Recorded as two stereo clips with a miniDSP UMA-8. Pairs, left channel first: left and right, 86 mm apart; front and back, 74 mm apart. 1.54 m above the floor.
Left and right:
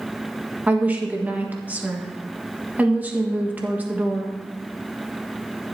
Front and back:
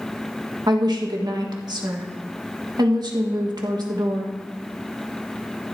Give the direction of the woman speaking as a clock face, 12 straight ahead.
5 o'clock.